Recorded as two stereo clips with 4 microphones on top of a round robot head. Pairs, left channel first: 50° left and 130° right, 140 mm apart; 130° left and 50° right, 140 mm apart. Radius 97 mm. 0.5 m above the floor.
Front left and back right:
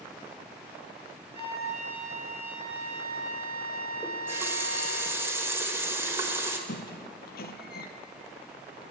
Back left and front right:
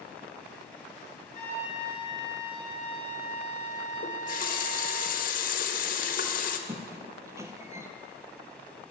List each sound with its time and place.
1.3 s a flute: straight behind, 6 m
4.0 s a running tap: 155° left, 1.5 m
6.7 s a squeak: 25° left, 1.0 m